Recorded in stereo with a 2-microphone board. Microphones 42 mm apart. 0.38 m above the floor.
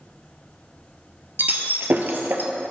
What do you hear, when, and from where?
1.4 s breaking glass: 55° right (ahead or behind), 0.9 m